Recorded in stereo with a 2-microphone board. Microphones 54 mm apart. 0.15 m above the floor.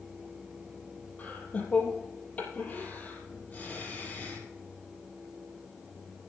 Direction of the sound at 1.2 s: 25° left (ahead or behind).